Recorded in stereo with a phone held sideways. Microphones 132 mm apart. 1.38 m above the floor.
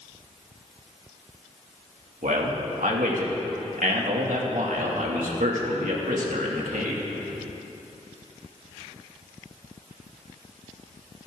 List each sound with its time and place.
2.2 s a man speaking: 85° right, 2.5 m